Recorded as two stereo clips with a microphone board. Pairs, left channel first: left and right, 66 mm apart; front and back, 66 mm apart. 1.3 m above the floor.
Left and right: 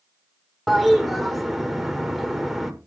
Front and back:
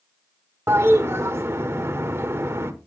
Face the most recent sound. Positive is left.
turn(degrees=180)